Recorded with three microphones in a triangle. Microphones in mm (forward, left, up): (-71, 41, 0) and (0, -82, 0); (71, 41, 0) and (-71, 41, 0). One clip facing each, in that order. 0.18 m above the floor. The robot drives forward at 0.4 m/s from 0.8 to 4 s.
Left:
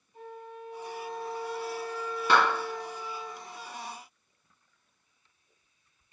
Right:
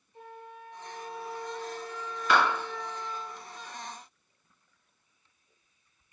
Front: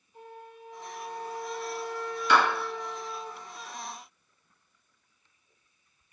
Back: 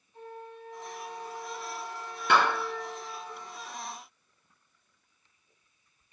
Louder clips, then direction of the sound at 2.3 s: Left 1 dB, front 1 dB; 170° left.